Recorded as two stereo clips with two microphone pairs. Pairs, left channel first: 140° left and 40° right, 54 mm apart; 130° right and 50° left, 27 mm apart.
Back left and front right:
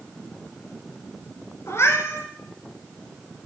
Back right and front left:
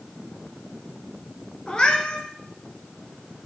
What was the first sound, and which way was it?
A cat meowing, 170° left.